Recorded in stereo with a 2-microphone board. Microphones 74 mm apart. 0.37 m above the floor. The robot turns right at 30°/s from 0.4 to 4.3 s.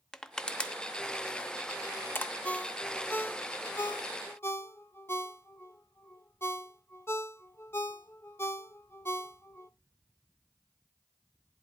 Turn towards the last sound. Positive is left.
turn(degrees=35)  # may be behind; listen again after turning